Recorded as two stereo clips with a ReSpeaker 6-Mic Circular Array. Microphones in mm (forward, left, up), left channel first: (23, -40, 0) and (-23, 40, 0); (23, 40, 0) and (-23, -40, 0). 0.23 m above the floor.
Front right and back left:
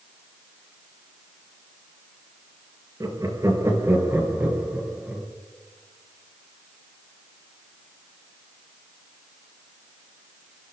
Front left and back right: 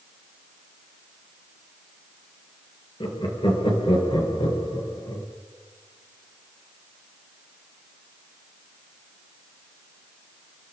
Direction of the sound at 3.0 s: 75° left.